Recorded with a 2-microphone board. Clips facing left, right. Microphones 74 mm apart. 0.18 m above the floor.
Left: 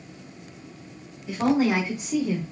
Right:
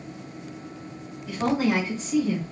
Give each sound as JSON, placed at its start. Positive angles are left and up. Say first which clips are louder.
{"t": 1.3, "sound": "a woman speaking", "louder": "left 2 dB", "side_deg": 25, "distance_m": 1.6}